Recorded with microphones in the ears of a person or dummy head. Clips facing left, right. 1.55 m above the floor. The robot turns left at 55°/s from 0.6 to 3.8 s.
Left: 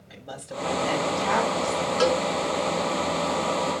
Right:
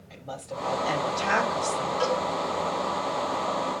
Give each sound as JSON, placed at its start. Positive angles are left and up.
{"t": 0.1, "sound": "a woman speaking", "azimuth_deg": 10, "distance_m": 5.5}
{"t": 2.0, "sound": "a cowbell", "side_deg": 70, "distance_m": 4.0}